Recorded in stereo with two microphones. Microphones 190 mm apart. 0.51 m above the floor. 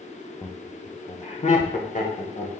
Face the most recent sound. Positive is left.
turn(degrees=45)  # may be behind; listen again after turning